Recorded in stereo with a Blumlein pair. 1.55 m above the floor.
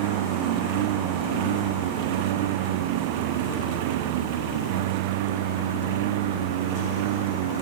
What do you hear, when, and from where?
0.0 s a lawn mower: 50° right